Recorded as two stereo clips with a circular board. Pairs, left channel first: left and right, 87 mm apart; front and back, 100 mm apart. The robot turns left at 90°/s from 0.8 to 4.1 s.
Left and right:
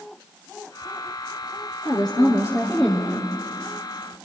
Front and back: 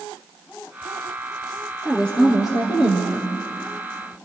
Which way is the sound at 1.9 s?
100° left.